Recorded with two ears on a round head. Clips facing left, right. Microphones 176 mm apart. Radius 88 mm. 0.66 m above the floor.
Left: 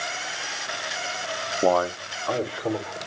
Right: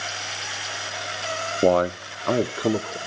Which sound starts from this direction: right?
A man speaking, at 1.6 s.